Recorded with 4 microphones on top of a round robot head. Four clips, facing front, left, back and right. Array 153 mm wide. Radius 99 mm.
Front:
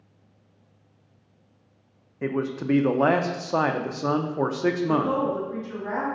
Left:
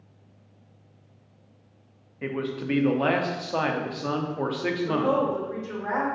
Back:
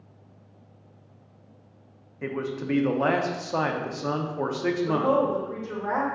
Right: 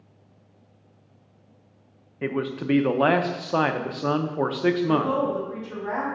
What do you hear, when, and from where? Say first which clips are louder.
2.2 s a man speaking: right 3 dB, front 4 dB; 50° right, 0.7 m
4.9 s a woman speaking: right 1 dB, back 1 dB; 150° left, 2 m